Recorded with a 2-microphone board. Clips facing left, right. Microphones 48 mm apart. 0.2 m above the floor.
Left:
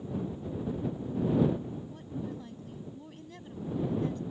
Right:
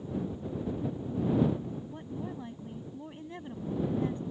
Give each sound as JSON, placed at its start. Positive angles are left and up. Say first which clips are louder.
{"t": 1.9, "sound": "a woman speaking", "louder": "even", "side_deg": -25}